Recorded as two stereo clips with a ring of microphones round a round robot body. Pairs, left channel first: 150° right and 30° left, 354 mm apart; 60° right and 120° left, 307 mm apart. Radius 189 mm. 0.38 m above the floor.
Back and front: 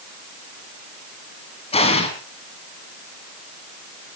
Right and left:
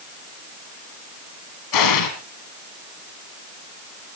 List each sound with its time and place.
1.7 s an explosion: 75° right, 3.5 m